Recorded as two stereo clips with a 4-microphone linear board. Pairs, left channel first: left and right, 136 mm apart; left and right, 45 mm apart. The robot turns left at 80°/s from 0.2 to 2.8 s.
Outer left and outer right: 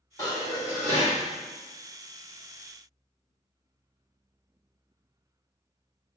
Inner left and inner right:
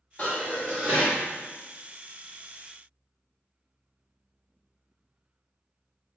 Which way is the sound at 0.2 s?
30° left.